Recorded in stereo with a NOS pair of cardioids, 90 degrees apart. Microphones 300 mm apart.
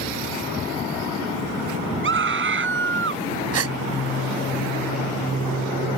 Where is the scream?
40° right.